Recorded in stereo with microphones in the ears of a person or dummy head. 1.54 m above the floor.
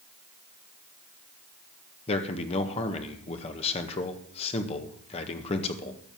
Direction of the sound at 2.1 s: 30° left (ahead or behind).